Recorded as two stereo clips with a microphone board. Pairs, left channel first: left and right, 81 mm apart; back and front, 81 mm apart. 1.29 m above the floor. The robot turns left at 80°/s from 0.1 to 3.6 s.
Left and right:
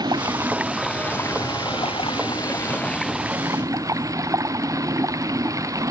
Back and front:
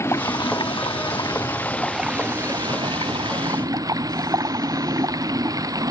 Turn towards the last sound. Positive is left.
turn(degrees=-40)